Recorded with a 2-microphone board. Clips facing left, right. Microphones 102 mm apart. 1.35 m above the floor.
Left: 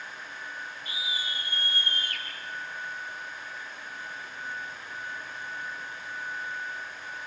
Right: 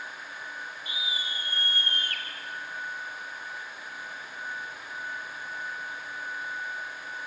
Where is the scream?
20° right (ahead or behind), 3.5 m; by 2.3 s 55° right (ahead or behind), 2.5 m.